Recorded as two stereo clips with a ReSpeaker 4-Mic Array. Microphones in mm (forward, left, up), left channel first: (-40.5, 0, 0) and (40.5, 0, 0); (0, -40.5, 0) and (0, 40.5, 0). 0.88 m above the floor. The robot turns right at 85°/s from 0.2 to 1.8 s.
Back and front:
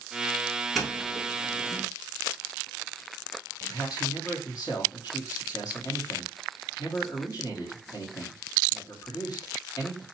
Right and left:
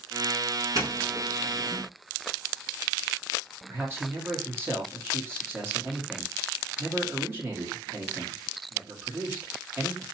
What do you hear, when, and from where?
0.8 s a doorbell: 90° left, 1.7 m; by 1.8 s straight behind, 1.7 m
3.7 s a man speaking: 150° left, 1.7 m